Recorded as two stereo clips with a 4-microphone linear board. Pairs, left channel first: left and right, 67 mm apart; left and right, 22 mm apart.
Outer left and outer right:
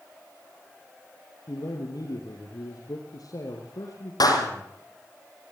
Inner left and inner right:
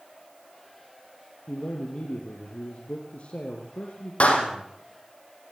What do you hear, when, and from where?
1.5 s a man speaking: 70° left (ahead or behind), 3.5 m
4.2 s a clap: 80° left, 4.5 m